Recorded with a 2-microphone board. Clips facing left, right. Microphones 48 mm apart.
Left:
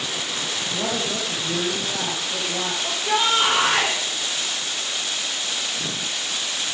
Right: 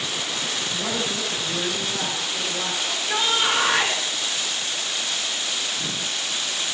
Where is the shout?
75° left (ahead or behind), 7.5 m.